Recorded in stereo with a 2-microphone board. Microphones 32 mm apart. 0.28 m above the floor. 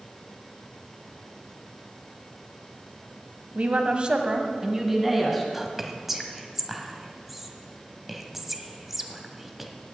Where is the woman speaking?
50° right (ahead or behind), 1.4 m; by 5.4 s 5° right (ahead or behind), 2.5 m.